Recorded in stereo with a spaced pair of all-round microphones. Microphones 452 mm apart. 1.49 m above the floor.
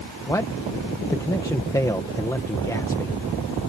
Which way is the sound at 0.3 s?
5° left (ahead or behind).